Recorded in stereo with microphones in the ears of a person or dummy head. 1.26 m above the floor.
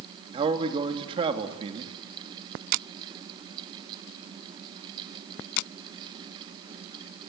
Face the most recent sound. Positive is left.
turn(degrees=-30)  # may be behind; listen again after turning